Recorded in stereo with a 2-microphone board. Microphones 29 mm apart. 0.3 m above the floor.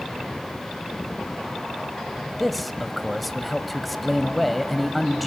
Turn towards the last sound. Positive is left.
turn(degrees=0)  # may be behind; listen again after turning